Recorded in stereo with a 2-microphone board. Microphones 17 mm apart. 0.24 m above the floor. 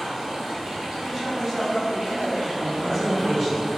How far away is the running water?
About 0.8 m.